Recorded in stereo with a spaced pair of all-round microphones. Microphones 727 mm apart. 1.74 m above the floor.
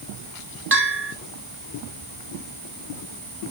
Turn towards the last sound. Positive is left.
turn(degrees=-15)  # may be behind; listen again after turning